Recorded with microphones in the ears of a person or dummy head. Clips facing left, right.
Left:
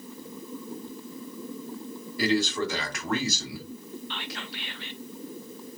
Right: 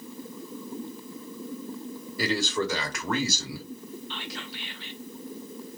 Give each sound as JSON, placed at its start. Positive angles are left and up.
{"t": 2.2, "sound": "a man speaking", "side_deg": -75, "distance_m": 1.2}
{"t": 4.1, "sound": "whispering", "side_deg": 55, "distance_m": 0.5}